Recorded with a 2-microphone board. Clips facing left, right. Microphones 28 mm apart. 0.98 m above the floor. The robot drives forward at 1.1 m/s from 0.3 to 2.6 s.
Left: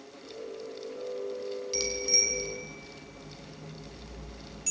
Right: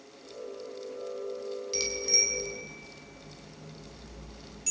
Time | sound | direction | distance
1.7 | a bicycle bell | centre (ahead or behind) | 6 m